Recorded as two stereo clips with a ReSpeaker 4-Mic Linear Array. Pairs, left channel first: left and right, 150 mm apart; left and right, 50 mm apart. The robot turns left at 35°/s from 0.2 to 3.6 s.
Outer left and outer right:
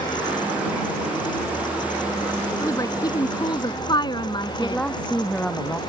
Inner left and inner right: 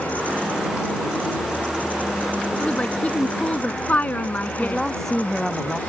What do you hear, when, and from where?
2.6 s a woman speaking: 135° left; by 4.8 s 100° left
4.6 s a woman speaking: 10° left (ahead or behind)